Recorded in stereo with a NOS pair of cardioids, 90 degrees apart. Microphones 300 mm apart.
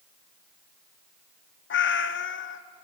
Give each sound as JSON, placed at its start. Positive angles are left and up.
{"t": 1.7, "sound": "a cat meowing", "azimuth_deg": 40, "distance_m": 1.1}